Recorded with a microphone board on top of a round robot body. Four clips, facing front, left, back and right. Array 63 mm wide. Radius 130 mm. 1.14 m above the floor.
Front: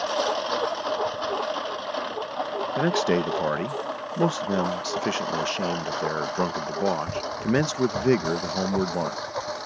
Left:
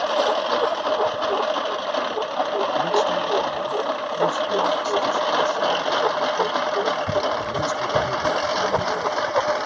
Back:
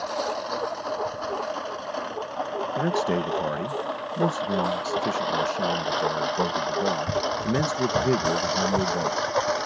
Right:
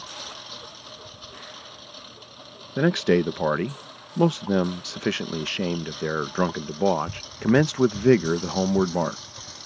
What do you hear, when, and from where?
0.0 s a lawn mower: 80° left; by 9.7 s 115° left
2.8 s a man speaking: 65° right